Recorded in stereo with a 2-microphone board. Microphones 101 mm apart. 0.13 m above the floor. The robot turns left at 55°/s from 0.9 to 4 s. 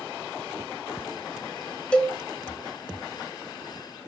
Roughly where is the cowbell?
Centre.